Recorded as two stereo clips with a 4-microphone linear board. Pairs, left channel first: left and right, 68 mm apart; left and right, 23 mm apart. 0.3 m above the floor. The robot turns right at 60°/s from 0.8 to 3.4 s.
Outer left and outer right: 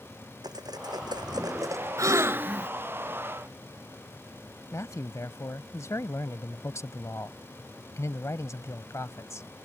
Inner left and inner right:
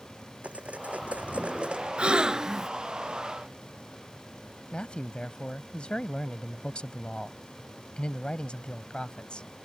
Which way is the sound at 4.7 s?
45° left (ahead or behind).